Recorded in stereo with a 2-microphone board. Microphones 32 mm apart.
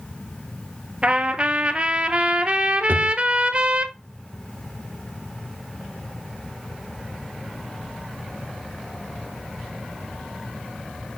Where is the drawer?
65° right (ahead or behind), 1.4 m.